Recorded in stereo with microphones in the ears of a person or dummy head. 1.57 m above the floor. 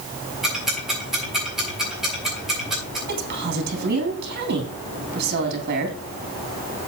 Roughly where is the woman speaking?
Right.